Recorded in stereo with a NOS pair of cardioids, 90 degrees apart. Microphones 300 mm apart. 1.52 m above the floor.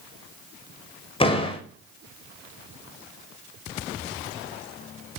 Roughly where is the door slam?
Ahead.